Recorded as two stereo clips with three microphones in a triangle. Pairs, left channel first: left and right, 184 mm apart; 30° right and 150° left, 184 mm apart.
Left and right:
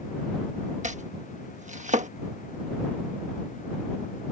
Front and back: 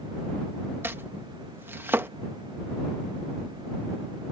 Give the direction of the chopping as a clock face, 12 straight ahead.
4 o'clock.